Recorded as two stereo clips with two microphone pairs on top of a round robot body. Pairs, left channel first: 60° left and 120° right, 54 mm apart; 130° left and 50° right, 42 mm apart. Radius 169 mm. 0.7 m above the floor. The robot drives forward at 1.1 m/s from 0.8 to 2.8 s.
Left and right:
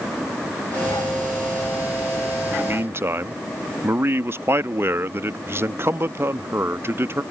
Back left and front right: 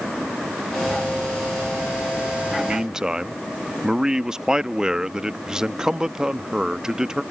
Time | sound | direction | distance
2.5 | a man speaking | 105° right | ?